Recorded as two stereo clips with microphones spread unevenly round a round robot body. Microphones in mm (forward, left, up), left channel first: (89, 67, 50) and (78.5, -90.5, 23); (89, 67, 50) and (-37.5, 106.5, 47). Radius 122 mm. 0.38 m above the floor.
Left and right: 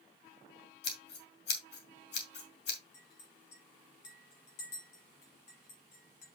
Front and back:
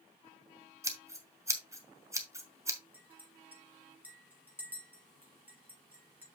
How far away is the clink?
About 5 m.